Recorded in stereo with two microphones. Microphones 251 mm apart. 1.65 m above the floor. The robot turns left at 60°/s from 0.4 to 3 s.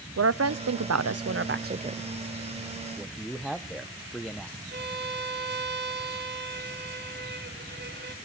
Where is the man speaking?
Centre (ahead or behind), 0.7 m.